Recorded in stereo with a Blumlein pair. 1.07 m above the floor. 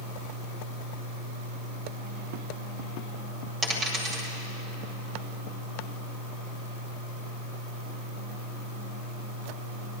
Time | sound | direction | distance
3.6 | a dropped coin | 20° right | 1.9 m